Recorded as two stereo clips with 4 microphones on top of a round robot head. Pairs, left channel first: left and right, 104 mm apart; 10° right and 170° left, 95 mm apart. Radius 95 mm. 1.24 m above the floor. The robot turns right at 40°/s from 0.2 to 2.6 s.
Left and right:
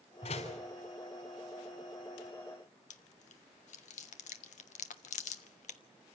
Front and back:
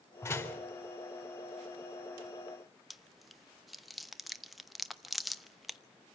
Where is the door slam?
50° left, 4 m; by 0.6 s 65° left, 4 m.